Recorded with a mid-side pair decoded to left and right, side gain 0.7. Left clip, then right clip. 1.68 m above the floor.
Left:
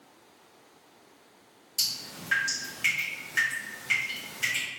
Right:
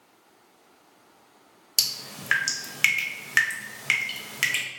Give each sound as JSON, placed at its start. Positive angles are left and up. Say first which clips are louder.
{"t": 1.8, "sound": "dripping", "louder": "right 4 dB", "azimuth_deg": -55, "distance_m": 0.8}